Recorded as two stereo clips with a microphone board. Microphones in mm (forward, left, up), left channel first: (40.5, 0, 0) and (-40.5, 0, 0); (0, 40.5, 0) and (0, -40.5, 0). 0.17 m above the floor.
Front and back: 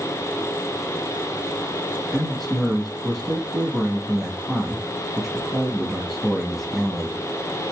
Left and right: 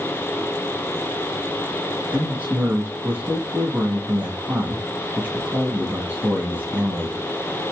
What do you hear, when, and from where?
2.1 s a man speaking: 85° right, 1.1 m